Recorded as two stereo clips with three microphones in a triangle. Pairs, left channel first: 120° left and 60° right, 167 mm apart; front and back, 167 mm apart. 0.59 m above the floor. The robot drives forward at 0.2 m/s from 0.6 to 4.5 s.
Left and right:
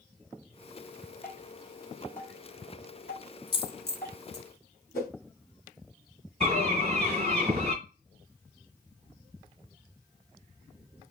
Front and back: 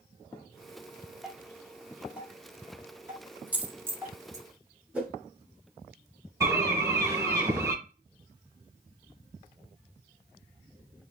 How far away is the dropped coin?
About 0.8 m.